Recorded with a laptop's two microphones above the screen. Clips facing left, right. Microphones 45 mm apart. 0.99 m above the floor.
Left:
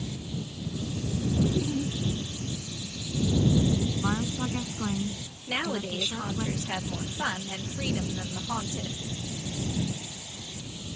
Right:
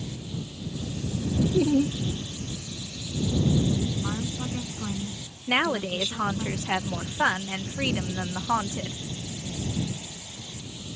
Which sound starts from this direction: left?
A woman speaking, at 4.0 s.